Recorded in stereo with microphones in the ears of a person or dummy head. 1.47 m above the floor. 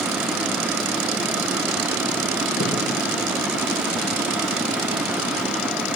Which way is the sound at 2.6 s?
75° left (ahead or behind).